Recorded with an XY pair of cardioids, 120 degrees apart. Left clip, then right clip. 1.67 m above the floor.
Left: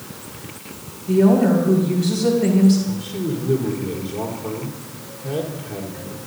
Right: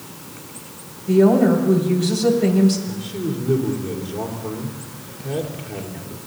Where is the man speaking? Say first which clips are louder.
Left 1 dB; 10° right, 4 m.